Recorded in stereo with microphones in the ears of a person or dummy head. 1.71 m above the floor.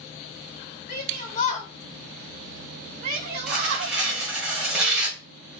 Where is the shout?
60° left (ahead or behind), 0.9 m; by 4.0 s 55° right (ahead or behind), 1.1 m.